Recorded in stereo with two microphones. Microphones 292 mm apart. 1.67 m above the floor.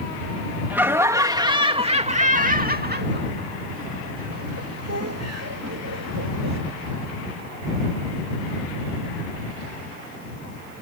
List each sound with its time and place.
0.7 s laughter: 5° right (ahead or behind); by 6.6 s 75° right (ahead or behind)